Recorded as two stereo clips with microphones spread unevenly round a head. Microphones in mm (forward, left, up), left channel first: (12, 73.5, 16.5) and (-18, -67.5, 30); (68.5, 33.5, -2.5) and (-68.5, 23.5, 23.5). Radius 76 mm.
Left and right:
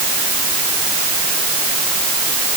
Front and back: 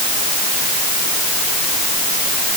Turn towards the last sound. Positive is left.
No sound to turn to.